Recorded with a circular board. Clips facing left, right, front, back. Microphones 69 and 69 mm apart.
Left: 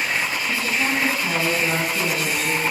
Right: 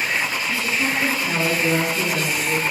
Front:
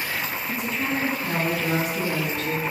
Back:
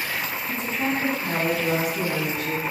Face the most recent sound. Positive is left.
turn(degrees=100)